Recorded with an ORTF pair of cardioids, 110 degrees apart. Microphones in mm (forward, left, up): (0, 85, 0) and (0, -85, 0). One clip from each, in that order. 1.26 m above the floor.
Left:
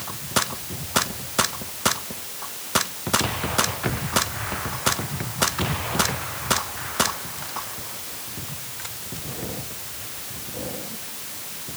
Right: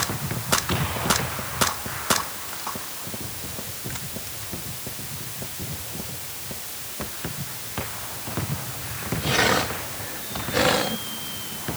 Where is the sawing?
No sawing in this recording.